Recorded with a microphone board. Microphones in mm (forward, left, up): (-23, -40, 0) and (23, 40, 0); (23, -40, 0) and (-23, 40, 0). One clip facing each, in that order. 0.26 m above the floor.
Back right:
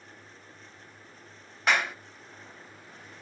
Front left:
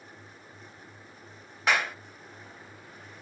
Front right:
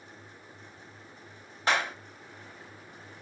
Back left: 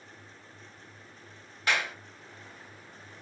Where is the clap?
30° right, 0.9 m.